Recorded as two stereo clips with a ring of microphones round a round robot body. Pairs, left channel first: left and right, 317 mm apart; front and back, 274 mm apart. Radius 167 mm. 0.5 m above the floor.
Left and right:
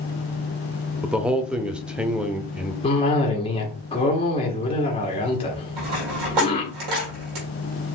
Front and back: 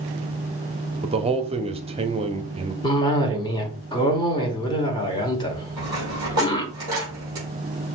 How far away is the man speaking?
About 0.7 m.